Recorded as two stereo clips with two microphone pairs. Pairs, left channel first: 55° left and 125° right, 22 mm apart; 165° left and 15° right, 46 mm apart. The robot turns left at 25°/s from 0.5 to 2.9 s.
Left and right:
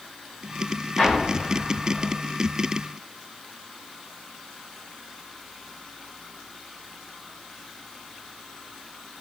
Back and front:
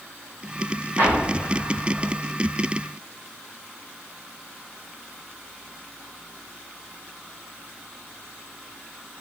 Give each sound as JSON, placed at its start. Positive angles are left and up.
{"t": 1.0, "sound": "an explosion", "azimuth_deg": 15, "distance_m": 2.0}